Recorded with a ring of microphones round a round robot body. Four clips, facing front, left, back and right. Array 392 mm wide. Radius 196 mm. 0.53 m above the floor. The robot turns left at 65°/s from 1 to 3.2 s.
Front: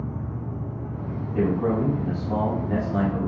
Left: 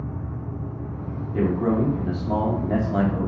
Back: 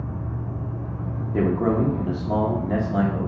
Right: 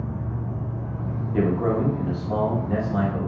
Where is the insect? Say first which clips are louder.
Right 2 dB, even; 130° right, 0.9 m; by 3.3 s 90° left, 0.9 m.